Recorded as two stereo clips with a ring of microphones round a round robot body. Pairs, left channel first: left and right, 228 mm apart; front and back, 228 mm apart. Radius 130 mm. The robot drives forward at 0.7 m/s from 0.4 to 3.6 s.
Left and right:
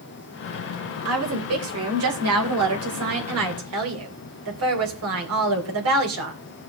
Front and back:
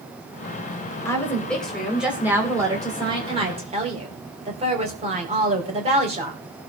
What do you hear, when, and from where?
1.1 s a woman speaking: 80° right, 3 m; by 6.4 s 115° right, 3 m